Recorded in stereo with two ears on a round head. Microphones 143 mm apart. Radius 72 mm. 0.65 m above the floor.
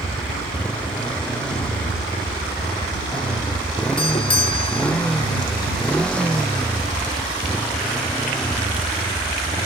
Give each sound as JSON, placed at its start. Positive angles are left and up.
{"t": 0.0, "sound": "a motorcycle", "side_deg": 5}
{"t": 4.0, "sound": "a doorbell", "side_deg": 35}